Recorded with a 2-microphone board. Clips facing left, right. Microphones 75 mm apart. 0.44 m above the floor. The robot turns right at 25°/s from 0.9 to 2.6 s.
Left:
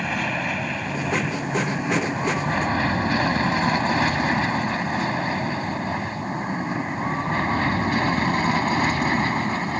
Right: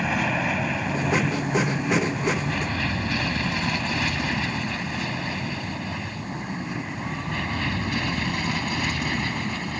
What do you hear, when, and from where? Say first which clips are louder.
0.0 s an aircraft: right 1 dB; 5° right (ahead or behind); by 9.8 s 40° left (ahead or behind)